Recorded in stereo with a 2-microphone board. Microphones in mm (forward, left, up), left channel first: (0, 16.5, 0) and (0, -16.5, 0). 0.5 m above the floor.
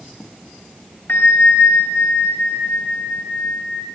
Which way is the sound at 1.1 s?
75° left (ahead or behind).